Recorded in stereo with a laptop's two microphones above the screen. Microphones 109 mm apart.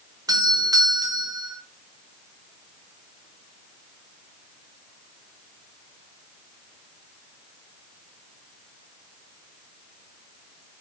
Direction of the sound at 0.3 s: 35° right (ahead or behind).